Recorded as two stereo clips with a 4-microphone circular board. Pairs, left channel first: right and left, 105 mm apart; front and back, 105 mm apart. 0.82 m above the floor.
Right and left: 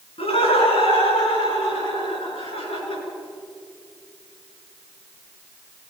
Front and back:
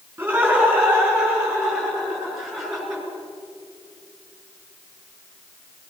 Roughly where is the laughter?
Right.